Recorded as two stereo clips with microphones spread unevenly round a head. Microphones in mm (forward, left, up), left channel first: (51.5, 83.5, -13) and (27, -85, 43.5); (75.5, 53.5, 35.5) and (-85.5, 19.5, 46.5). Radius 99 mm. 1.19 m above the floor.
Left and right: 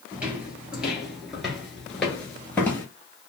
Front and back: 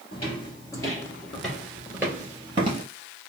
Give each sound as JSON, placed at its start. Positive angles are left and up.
{"t": 0.1, "sound": "footsteps", "azimuth_deg": -45, "distance_m": 1.5}